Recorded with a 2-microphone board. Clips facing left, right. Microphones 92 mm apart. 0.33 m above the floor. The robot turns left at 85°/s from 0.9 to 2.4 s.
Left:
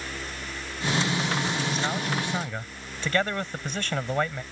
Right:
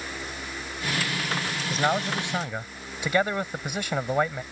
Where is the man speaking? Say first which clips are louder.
Right 3 dB; 105° right; by 4.4 s 165° right.